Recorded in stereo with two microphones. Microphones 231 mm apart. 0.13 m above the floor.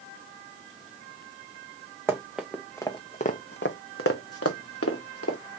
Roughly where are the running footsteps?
Centre.